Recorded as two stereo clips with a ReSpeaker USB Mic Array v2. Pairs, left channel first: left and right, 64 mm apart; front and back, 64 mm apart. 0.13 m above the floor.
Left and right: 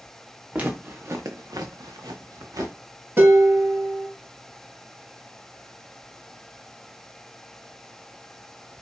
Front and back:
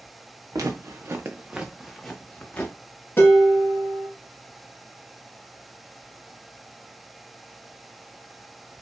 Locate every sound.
0.5 s footsteps: 155° right, 0.7 m; by 2.8 s 65° right, 0.9 m
3.2 s dishes clattering: 45° right, 1.4 m